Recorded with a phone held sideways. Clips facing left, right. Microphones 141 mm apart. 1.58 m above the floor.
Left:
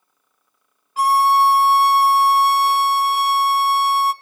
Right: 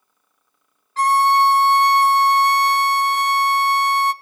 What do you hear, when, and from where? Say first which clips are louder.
1.0 s a violin: left 1 dB; 10° left (ahead or behind), 0.5 m